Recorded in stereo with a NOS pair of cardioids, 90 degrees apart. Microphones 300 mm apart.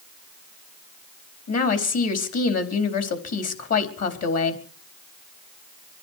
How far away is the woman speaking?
About 4 m.